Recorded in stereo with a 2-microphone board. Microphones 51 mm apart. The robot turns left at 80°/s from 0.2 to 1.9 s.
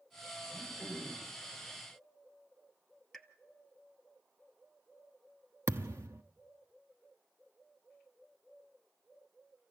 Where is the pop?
5° left (ahead or behind), 1.0 m.